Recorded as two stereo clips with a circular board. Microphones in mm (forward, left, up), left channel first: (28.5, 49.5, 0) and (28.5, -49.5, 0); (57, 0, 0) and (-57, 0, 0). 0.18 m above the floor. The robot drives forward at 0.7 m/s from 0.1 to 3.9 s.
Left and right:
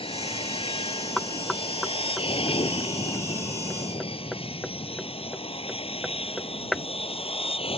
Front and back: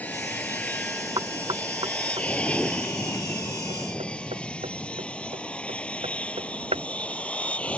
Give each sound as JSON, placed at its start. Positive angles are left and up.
{"t": 0.0, "sound": "an aircraft", "azimuth_deg": 75}
{"t": 1.2, "sound": "knocking", "azimuth_deg": 170}